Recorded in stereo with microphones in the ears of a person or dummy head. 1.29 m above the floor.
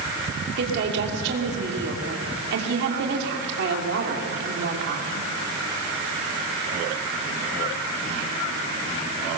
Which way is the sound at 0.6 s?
60° right (ahead or behind).